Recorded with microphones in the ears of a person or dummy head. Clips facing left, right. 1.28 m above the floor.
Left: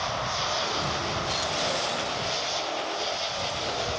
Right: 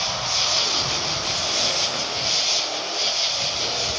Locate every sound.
0.0 s an insect: 65° right (ahead or behind)